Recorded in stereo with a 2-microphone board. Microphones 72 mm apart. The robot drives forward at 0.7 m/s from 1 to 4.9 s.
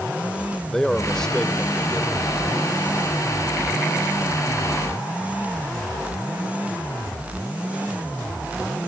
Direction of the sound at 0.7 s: 10° left (ahead or behind).